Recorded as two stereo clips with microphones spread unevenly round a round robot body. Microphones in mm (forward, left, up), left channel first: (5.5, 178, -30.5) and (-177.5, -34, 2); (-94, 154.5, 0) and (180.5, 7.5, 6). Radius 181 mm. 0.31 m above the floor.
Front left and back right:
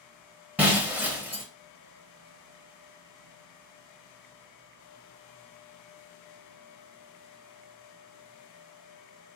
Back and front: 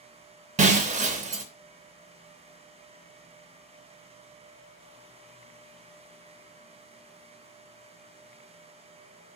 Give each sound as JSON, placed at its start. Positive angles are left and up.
{"t": 0.6, "sound": "breaking glass", "azimuth_deg": -40, "distance_m": 0.6}